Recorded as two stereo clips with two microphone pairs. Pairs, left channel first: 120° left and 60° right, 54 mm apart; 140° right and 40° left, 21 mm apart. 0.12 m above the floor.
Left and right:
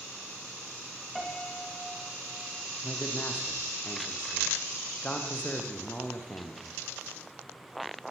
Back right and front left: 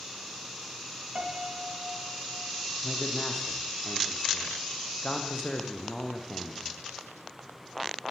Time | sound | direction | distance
1.1 | a piano | 30° left | 9 m
2.8 | a man speaking | 175° left | 7.5 m